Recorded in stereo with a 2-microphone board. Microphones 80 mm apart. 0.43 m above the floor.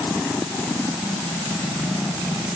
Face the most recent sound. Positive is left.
No sound to turn to.